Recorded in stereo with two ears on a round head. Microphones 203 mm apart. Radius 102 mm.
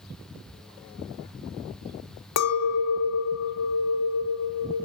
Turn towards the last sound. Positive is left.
turn(degrees=80)